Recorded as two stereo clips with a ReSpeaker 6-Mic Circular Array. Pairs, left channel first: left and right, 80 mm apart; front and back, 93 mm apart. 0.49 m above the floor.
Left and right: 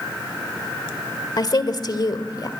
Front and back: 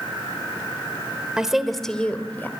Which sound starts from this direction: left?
A woman speaking, at 1.4 s.